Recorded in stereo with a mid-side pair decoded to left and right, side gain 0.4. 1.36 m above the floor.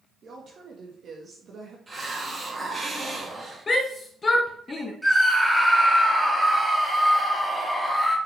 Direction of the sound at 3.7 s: 40° left.